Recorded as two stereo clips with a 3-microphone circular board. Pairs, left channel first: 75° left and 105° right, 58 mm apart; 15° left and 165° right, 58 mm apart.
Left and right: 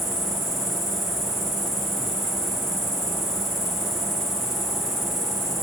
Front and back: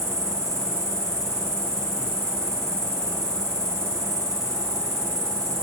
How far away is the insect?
About 1.6 m.